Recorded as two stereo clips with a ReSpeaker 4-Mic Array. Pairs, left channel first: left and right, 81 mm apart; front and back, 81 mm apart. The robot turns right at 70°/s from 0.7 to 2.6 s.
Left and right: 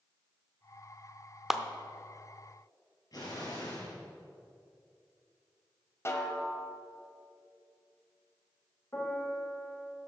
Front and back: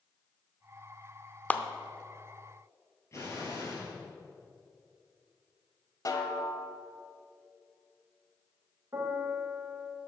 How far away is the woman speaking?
I don't hear a woman speaking.